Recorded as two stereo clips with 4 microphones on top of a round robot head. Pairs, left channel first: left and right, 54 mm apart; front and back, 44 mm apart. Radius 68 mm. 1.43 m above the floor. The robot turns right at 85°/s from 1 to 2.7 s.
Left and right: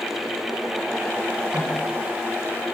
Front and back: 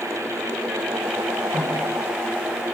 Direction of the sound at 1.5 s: 160° right.